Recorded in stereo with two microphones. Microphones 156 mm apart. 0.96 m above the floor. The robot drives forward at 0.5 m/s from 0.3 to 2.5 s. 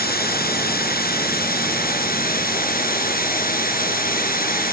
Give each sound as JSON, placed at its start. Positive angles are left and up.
{"t": 0.0, "sound": "running water", "side_deg": 75, "distance_m": 5.5}